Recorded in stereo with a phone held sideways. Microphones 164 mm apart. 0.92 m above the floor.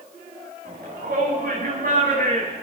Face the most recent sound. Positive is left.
turn(degrees=-55)  # may be behind; listen again after turning